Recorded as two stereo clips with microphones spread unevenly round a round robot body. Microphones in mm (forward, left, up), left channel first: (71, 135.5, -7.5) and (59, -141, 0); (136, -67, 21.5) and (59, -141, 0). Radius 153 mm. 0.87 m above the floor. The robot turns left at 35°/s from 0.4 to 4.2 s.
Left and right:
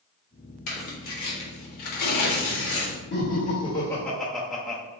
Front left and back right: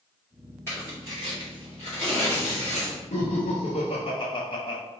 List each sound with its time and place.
0.7 s tearing paper: 125° left, 1.4 m; by 3.0 s 45° left, 1.4 m
3.1 s laughter: 40° left, 1.1 m; by 4.8 s straight ahead, 1.1 m